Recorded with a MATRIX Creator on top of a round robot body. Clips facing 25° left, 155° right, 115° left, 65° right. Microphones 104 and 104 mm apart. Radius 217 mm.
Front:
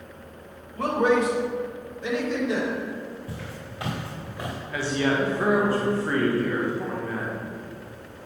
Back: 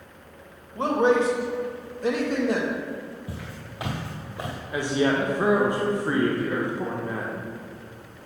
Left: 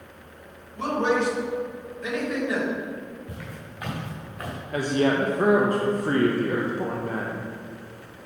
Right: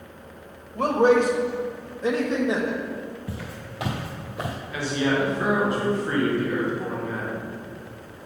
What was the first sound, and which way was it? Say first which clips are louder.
A man speaking: back 1 dB, right 5 dB; 95° right.